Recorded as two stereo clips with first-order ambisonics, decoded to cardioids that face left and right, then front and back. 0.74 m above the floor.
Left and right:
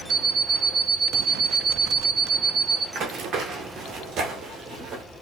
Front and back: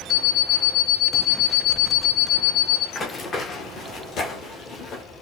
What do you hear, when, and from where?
0.1 s an alarm clock: 45° right, 2.5 m
3.0 s running footsteps: 65° right, 0.8 m; by 5.0 s 40° right, 1.7 m